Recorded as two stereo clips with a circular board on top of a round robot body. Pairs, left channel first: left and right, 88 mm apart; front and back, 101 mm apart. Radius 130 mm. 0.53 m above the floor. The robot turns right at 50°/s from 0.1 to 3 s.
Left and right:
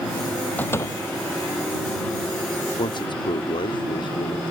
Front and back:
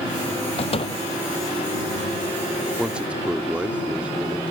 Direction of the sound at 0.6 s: 20° left.